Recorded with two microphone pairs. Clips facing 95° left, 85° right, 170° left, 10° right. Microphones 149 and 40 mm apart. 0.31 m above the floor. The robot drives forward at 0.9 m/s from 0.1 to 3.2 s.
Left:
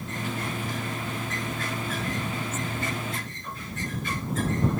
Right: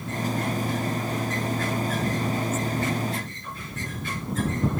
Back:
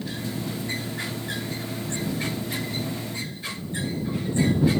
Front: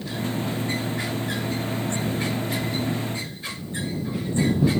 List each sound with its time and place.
Only background noise.